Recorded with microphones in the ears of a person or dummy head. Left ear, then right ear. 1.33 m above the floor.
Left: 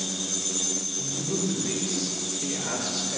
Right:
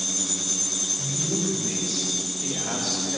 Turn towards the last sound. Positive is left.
turn(degrees=20)  # may be behind; listen again after turning